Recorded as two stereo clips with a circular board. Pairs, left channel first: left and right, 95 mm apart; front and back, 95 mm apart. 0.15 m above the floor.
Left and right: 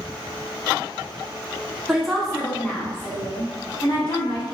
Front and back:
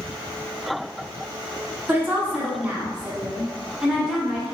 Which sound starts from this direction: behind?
A woman speaking, at 1.9 s.